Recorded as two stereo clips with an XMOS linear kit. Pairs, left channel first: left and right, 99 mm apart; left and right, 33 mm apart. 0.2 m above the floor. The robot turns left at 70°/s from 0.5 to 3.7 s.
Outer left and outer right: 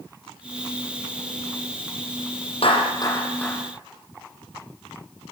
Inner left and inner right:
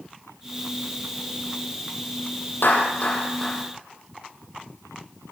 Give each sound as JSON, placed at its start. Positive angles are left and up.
{"t": 2.6, "sound": "a clap", "side_deg": 65, "distance_m": 7.0}